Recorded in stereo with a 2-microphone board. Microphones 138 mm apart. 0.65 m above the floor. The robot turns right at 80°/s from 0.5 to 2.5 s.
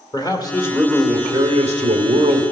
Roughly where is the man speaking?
Behind left.